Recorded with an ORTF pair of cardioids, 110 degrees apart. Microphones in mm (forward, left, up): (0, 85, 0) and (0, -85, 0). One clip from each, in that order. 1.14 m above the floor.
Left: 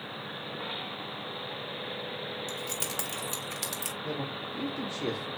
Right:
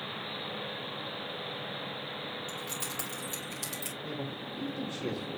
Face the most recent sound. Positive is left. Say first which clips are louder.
# left 3 dB
turn(degrees=15)